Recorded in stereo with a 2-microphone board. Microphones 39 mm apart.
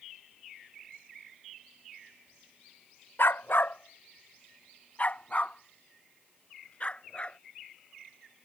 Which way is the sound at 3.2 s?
75° left (ahead or behind).